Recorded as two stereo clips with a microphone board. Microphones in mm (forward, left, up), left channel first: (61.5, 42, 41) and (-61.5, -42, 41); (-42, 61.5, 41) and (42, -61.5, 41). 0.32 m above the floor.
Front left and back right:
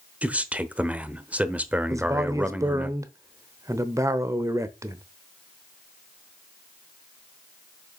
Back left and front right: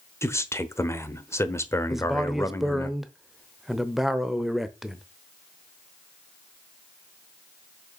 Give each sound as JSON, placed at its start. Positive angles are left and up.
{"t": 0.2, "sound": "a man speaking", "azimuth_deg": 150, "distance_m": 1.0}
{"t": 1.9, "sound": "a man speaking", "azimuth_deg": -140, "distance_m": 0.9}